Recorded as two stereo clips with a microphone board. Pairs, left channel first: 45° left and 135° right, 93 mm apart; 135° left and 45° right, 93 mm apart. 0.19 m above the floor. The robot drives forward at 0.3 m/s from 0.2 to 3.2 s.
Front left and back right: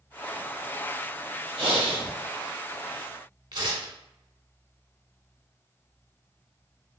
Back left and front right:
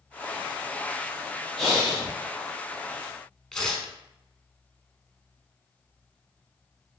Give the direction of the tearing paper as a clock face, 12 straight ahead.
5 o'clock.